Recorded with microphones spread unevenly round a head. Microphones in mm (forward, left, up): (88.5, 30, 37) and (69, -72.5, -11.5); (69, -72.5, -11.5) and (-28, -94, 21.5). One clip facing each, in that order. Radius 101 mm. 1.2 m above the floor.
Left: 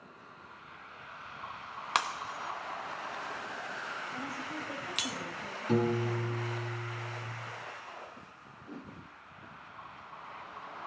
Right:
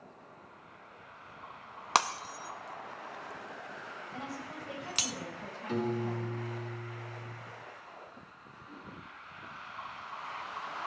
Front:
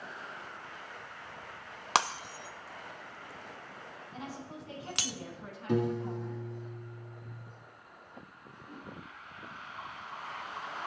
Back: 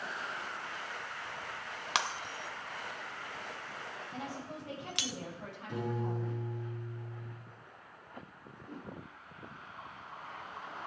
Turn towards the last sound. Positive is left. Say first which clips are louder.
# left 4 dB, back 1 dB
turn(degrees=125)